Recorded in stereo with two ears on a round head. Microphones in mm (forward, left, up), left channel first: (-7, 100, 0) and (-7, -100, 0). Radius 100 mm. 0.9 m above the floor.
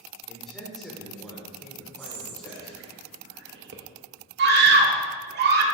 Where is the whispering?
50° right (ahead or behind), 1.2 m.